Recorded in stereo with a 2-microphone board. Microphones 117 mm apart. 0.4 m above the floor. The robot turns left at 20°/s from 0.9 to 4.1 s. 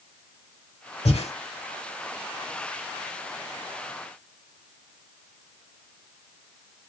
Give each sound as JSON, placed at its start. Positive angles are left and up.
{"t": 1.1, "sound": "breathing", "side_deg": 65, "distance_m": 1.0}